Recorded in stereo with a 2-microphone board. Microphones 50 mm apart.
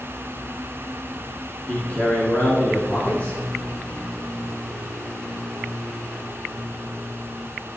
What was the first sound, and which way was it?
A man speaking, 30° left (ahead or behind).